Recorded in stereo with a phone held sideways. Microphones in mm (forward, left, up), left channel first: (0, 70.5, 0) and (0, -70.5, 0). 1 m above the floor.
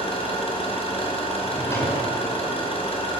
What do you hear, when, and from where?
0.0 s an engine running: 45° left (ahead or behind), 4 m
1.4 s a drawer: 20° left (ahead or behind), 5 m